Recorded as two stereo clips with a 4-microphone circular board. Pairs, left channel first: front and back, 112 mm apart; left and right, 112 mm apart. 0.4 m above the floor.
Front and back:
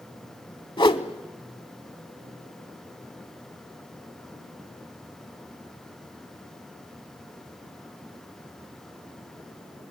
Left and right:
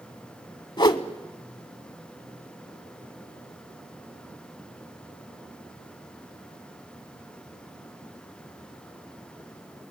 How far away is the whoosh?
About 0.8 m.